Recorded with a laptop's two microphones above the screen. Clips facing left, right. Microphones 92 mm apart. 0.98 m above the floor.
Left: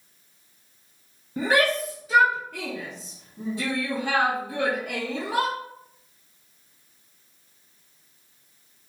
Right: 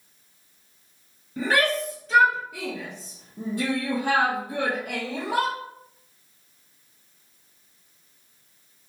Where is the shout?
25° left (ahead or behind), 1.0 m; by 5.5 s 70° right (ahead or behind), 1.5 m.